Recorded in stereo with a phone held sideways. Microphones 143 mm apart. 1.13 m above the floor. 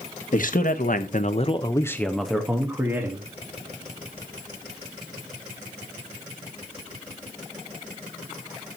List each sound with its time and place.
0.3 s a man speaking: 70° left (ahead or behind), 1.5 m; by 3.3 s 20° right (ahead or behind), 2.5 m